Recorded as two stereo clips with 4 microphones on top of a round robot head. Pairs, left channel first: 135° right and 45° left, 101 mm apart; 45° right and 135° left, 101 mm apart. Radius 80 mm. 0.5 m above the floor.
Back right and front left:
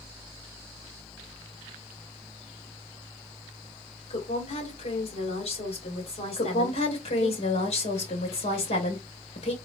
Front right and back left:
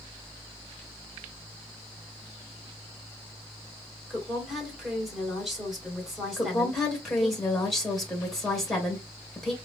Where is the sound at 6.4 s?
135° right, 2.5 m.